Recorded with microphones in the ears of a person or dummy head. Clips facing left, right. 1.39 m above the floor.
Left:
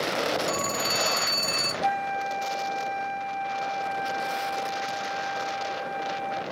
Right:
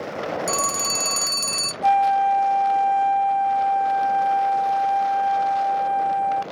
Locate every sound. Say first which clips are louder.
0.5 s a phone ringing: right 1 dB; 65° right (ahead or behind), 0.5 m
1.8 s a flute: right 11 dB; 60° right (ahead or behind), 1.4 m